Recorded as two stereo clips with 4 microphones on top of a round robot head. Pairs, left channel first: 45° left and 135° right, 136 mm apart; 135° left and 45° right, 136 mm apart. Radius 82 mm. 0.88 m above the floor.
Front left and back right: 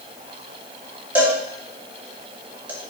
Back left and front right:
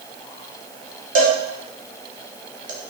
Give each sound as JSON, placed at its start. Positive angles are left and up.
{"t": 1.1, "sound": "a cowbell", "azimuth_deg": -55, "distance_m": 1.9}